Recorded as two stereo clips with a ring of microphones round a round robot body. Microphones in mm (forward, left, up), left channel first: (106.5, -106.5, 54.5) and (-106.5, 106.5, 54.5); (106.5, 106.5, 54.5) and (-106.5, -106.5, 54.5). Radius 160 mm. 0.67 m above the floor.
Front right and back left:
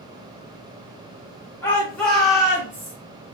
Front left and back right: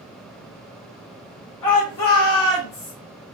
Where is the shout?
35° left, 3 m; by 2.9 s 55° left, 3 m.